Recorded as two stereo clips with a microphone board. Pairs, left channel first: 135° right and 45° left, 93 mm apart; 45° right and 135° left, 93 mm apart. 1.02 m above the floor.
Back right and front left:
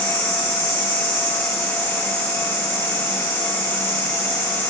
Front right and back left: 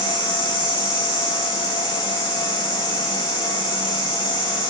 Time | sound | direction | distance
0.0 | an insect | 55° left | 1.5 m